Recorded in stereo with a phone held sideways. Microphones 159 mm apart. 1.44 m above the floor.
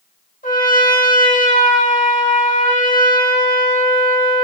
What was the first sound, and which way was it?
A trumpet, 65° left (ahead or behind).